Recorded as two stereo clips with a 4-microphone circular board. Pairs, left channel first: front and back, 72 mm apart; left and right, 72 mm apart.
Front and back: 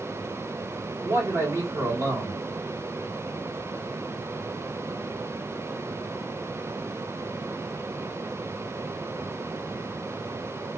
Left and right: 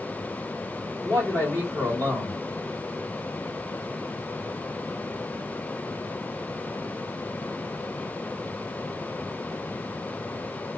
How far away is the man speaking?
About 2 m.